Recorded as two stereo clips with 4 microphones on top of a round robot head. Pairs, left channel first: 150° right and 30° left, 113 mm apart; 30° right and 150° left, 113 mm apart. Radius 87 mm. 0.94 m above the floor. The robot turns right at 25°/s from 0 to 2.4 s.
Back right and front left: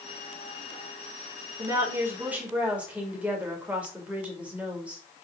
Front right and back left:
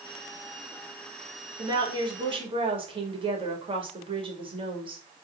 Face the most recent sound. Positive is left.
turn(degrees=110)